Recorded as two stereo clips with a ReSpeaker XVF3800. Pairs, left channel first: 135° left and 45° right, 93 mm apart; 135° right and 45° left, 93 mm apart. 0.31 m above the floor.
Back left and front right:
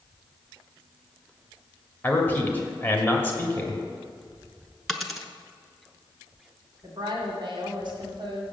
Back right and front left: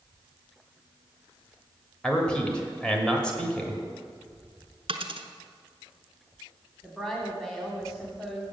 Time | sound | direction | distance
2.0 | a man speaking | 160° left | 1.5 m
4.9 | a dropped coin | 45° left | 0.9 m
6.8 | a woman speaking | 50° right | 1.8 m